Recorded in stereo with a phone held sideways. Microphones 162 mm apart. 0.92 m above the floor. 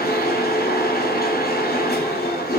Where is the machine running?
80° left, 5.5 m.